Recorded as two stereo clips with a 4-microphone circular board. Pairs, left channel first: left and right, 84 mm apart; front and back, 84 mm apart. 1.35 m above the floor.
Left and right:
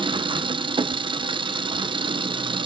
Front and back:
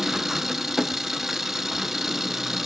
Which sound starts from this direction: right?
An engine running, at 0.0 s.